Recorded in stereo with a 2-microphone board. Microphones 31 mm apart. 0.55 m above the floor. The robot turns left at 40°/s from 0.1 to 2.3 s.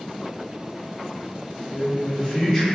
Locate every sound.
1.7 s a man speaking: 25° left (ahead or behind), 1.1 m